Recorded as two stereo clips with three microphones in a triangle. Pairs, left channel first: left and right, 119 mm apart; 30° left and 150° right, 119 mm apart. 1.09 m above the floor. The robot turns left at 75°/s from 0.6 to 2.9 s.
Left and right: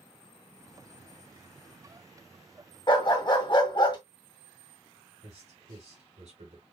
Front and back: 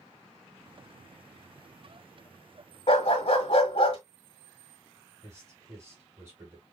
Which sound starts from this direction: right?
A man speaking, at 5.2 s.